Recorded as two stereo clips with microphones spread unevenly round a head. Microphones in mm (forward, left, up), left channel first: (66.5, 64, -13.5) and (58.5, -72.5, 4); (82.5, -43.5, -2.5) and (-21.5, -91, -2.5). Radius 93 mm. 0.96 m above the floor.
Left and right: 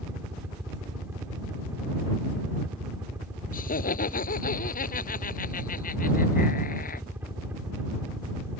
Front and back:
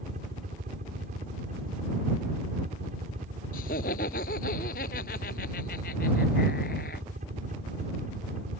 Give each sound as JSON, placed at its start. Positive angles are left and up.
{"t": 0.0, "sound": "a helicopter", "azimuth_deg": -175}
{"t": 3.5, "sound": "laughter", "azimuth_deg": 60}